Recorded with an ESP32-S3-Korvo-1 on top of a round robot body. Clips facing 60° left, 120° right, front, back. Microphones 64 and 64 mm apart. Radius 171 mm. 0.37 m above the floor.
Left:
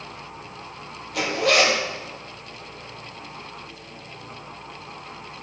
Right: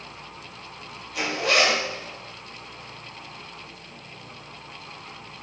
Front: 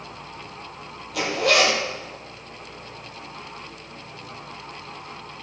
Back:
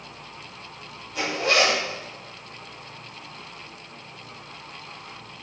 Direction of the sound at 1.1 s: 25° left.